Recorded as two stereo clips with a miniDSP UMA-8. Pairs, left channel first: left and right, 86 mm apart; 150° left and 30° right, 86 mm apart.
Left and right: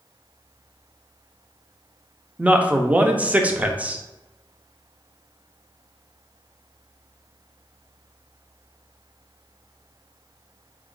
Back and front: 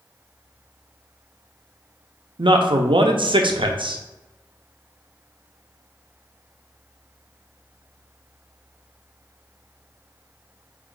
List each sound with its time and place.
2.4 s a man speaking: 15° right, 0.5 m